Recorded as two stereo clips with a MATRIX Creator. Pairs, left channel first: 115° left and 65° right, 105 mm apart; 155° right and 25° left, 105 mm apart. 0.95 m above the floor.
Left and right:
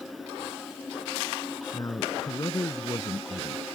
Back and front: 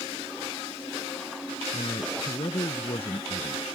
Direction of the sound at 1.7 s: 175° left.